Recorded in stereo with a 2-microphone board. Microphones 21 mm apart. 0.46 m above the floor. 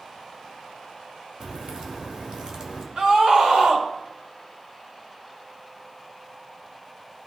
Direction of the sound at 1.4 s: 40° right (ahead or behind).